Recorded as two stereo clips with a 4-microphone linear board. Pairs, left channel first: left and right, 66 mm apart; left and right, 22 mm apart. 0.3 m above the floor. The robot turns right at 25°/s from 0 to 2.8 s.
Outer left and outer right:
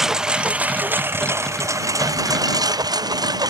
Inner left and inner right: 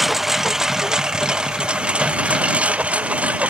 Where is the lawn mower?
175° right; by 3.5 s 105° right.